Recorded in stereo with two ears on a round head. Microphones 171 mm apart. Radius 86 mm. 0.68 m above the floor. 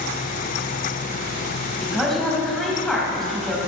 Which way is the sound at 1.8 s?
Centre (ahead or behind).